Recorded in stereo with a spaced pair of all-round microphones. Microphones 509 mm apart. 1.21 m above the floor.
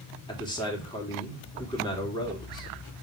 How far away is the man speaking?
About 2 m.